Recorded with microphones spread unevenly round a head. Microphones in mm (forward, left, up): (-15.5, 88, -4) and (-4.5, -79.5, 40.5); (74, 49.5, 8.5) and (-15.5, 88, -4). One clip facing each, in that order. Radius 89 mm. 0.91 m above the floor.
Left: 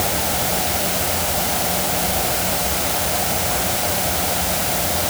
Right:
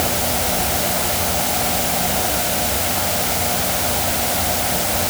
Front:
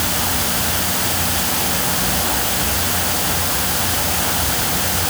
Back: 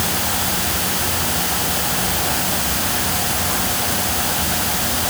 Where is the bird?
No bird in this recording.